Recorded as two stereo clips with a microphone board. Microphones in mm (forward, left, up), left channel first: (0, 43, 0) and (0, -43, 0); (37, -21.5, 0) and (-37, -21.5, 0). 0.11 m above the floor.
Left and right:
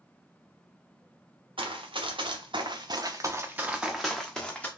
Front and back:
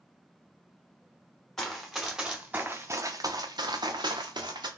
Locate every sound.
1.6 s running footsteps: 85° right, 1.2 m; by 4.7 s 165° left, 1.1 m